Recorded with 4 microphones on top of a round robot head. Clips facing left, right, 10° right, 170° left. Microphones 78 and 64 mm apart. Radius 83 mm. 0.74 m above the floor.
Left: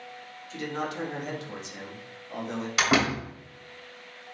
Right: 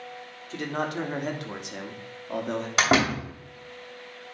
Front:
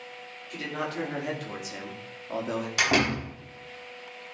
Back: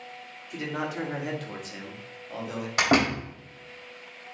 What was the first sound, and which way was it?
A man speaking, 125° right.